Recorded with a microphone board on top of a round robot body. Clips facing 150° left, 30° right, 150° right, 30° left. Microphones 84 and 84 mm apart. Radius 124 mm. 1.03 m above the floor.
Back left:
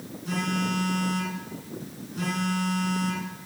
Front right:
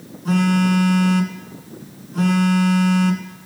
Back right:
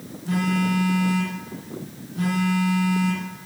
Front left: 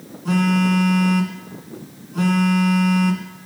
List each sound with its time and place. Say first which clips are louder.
0.2 s a phone buzzing: front right 11 dB, front left 5 dB; 10° left, 2.5 m